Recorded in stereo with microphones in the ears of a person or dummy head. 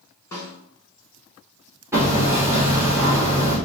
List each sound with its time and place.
0.3 s a snare drum: 20° left (ahead or behind), 1.7 m
1.9 s hammering: 10° right (ahead or behind), 1.6 m